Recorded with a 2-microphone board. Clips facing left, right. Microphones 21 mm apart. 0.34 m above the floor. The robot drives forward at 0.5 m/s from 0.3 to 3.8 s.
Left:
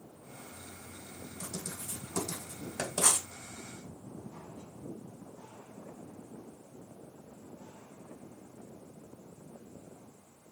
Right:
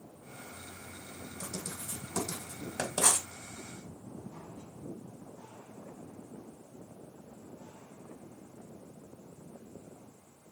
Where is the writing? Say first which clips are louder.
Even; 10° right (ahead or behind), 2.5 m; by 3.3 s 15° right (ahead or behind), 1.6 m.